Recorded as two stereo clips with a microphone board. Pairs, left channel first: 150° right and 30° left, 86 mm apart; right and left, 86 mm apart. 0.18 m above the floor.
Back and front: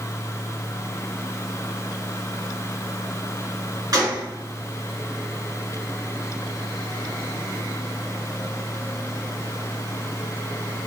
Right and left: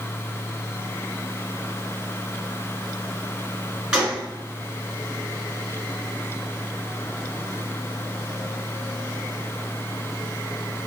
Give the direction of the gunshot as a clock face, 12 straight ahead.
12 o'clock.